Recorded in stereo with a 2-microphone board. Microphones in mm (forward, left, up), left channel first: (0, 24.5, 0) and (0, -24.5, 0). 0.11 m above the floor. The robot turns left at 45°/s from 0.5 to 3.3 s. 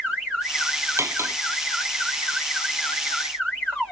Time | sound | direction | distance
1.0 | cutlery clinking | 65° right (ahead or behind) | ?